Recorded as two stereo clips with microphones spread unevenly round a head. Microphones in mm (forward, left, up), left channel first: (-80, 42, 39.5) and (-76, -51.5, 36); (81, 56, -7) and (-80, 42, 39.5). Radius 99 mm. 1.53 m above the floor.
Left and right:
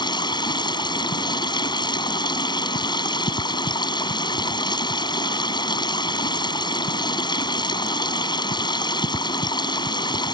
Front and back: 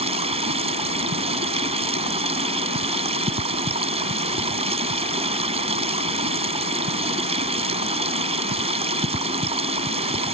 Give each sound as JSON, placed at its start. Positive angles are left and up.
{"t": 0.0, "sound": "running water", "azimuth_deg": 135}